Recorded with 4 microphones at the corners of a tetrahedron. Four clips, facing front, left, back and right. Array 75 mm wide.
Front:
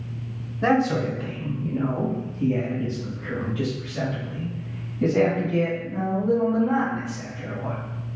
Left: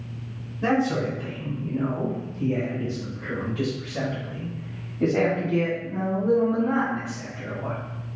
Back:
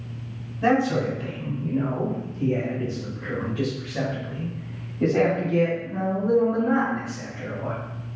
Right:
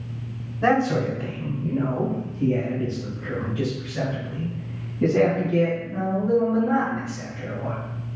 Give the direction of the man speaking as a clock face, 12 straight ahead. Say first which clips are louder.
Right 3 dB, even; 2 o'clock.